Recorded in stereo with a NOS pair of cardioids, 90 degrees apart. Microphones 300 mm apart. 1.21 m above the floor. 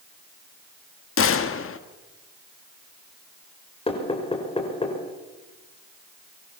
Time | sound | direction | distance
1.2 | a gunshot | 45° left | 1.7 m
3.9 | knocking | 20° left | 5 m